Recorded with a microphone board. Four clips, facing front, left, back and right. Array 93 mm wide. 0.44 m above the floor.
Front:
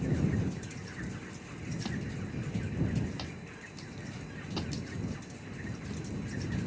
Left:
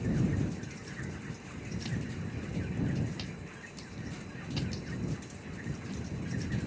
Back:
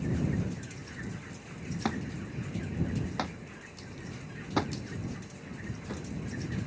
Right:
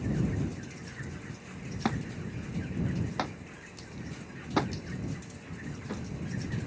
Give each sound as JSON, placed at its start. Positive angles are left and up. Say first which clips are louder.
{"t": 1.9, "sound": "a thud", "louder": "right 8 dB, back 6 dB", "azimuth_deg": -120}